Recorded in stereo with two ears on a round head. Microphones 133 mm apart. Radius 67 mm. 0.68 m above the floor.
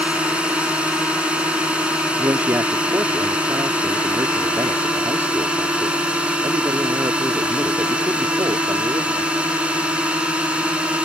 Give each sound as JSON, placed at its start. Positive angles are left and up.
{"t": 0.0, "sound": "a drone", "side_deg": -5}
{"t": 2.2, "sound": "a man speaking", "side_deg": -15}